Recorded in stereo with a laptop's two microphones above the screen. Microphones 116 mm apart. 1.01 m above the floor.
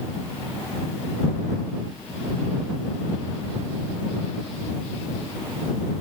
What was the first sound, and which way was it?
Only background noise.